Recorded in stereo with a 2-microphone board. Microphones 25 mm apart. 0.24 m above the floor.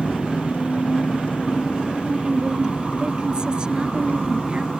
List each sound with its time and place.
0.0 s an engine running: 65° left (ahead or behind)
2.1 s a woman speaking: 35° right (ahead or behind)